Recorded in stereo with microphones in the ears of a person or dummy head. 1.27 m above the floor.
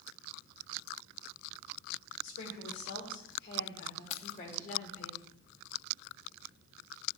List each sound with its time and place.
2.2 s a woman speaking: 70° left (ahead or behind), 4.5 m; by 5.1 s 40° left (ahead or behind), 4 m
4.1 s keys jangling: 40° left (ahead or behind), 0.8 m